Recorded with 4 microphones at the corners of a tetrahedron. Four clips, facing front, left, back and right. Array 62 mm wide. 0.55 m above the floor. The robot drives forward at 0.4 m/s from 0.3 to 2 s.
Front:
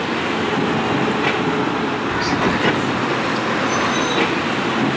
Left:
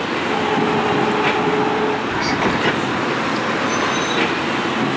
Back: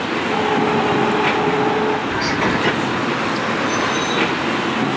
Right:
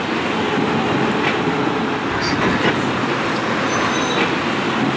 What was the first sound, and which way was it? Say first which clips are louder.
Whispering: even, even; 125° right.